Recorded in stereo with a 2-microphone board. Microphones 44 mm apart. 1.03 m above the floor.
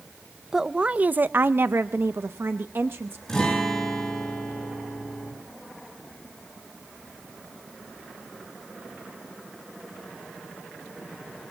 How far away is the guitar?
About 8.5 m.